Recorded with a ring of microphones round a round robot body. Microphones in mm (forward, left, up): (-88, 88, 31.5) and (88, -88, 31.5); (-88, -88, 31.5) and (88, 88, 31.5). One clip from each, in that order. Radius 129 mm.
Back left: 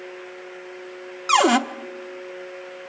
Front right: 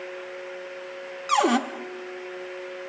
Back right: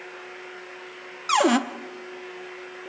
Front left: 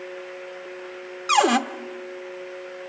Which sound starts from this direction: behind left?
A cupboard door, at 1.3 s.